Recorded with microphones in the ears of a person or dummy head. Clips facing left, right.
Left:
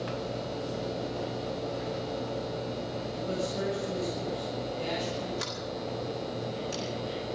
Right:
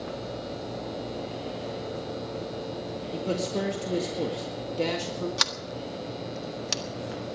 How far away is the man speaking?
About 2.0 m.